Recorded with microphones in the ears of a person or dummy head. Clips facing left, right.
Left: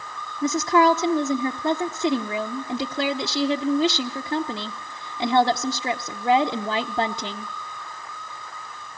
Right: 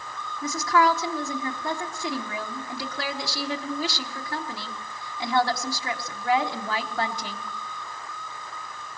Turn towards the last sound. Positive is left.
turn(degrees=25)  # may be behind; listen again after turning